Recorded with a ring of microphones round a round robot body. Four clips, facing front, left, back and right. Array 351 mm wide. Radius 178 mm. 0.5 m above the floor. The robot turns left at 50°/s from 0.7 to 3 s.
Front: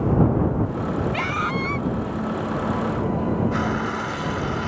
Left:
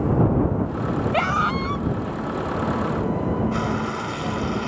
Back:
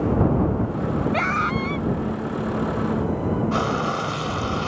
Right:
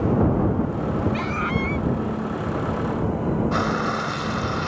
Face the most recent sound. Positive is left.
turn(degrees=-145)